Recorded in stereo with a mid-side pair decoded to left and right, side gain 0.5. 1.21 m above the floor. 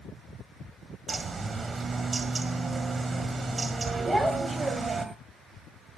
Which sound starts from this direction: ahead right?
A bird, at 1.1 s.